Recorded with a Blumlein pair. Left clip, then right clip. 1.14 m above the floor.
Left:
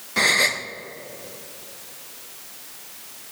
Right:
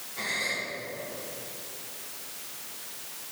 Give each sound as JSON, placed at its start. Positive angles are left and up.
{"t": 0.2, "sound": "a gasp", "azimuth_deg": 40, "distance_m": 0.7}